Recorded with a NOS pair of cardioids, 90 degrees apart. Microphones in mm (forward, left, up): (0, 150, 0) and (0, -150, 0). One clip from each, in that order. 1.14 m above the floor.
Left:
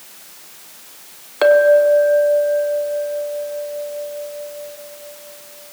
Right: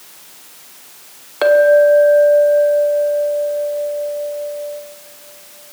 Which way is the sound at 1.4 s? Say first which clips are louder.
Right 1 dB; 5° left.